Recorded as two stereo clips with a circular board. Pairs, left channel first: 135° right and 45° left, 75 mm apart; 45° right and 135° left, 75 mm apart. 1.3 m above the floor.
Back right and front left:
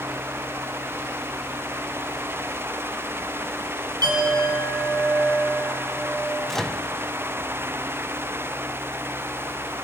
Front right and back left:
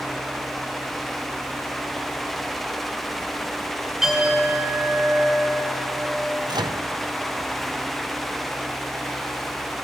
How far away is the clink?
About 7 m.